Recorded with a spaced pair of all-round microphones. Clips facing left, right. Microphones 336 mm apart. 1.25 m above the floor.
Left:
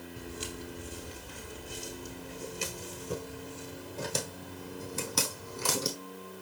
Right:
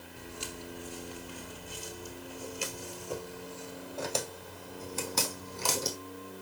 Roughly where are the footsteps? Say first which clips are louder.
Left 1 dB; left.